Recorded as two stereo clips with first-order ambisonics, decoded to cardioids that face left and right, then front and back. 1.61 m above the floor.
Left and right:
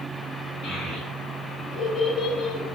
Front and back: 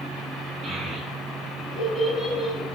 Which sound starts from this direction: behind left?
A child speaking, at 0.6 s.